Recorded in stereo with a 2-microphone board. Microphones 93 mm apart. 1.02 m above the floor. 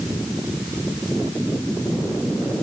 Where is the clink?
No clink in this recording.